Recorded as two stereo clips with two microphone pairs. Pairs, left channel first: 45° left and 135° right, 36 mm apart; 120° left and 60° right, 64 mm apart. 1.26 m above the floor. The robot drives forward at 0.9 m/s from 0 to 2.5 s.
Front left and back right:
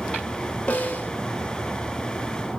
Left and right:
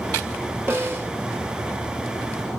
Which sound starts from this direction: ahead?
A snare drum, at 0.7 s.